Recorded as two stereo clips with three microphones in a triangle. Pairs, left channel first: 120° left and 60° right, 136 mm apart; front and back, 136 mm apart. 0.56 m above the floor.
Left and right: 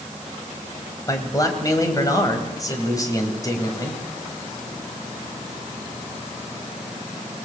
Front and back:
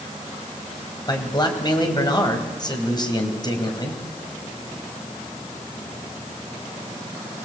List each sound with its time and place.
1.1 s a man speaking: 55° left, 3.5 m